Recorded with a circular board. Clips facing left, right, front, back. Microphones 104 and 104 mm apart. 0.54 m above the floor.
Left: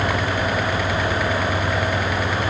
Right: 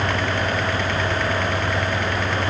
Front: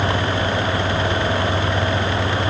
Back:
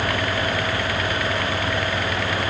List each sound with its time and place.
Only background noise.